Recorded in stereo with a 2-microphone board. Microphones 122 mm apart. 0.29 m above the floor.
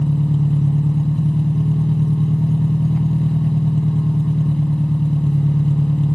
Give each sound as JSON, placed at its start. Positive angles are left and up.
{"t": 0.0, "sound": "an engine running", "side_deg": 10, "distance_m": 0.9}